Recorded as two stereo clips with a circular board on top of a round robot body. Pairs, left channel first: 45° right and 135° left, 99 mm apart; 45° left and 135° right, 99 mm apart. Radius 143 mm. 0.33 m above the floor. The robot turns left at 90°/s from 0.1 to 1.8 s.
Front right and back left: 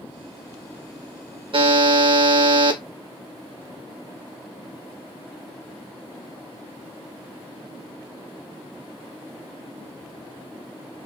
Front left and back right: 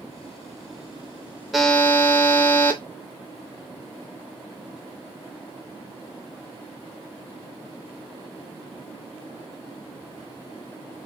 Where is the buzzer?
135° left, 0.9 m; by 2.8 s 115° left, 0.9 m.